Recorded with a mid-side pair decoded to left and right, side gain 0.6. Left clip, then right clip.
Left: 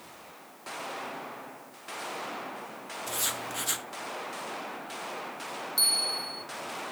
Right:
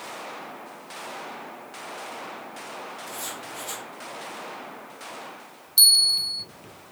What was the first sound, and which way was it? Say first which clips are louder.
Writing: left 2 dB; 35° left.